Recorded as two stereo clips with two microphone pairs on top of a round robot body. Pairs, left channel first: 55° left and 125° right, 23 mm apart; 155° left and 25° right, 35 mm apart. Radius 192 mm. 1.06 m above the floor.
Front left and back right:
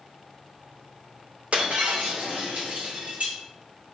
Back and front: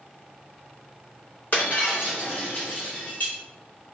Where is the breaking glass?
165° right, 3 m.